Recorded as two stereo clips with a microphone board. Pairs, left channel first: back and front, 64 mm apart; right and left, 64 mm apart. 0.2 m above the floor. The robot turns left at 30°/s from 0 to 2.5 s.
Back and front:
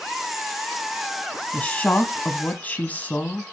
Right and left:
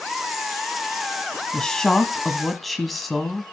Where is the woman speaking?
145° right, 1.1 m; by 3.5 s 175° right, 1.1 m.